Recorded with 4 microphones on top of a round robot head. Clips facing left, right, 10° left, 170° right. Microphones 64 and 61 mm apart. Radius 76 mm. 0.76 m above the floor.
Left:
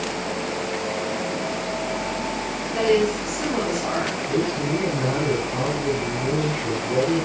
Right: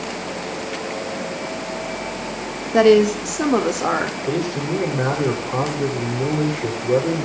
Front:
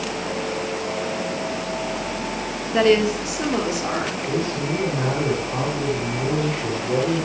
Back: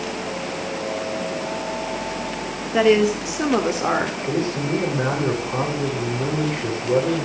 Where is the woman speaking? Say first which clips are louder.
Right 7 dB, back 1 dB; 85° right, 1.8 m; by 4.2 s 125° right, 2.5 m.